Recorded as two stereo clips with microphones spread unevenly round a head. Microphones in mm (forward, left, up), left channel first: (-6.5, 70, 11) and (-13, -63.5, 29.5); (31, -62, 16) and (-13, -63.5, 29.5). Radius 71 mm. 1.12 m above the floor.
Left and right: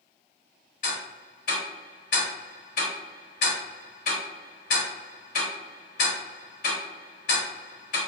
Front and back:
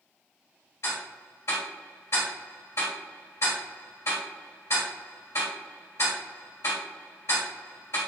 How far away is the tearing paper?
No tearing paper in this recording.